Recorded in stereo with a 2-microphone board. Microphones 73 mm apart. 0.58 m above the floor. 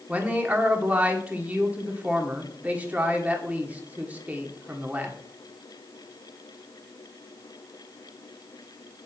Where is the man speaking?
20° right (ahead or behind), 1.3 m.